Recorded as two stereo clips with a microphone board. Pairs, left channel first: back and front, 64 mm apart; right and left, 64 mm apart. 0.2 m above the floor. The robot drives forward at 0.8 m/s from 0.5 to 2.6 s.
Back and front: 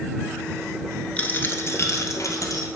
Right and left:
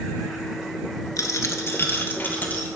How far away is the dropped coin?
About 0.8 m.